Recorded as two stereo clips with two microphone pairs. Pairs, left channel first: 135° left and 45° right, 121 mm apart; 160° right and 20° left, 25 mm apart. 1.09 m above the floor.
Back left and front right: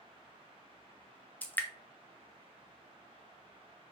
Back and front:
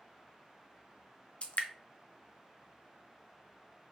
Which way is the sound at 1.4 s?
150° right.